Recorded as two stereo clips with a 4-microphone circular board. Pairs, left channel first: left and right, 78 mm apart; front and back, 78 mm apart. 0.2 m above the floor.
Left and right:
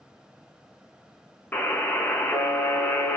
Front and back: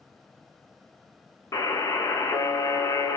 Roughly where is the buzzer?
Ahead left.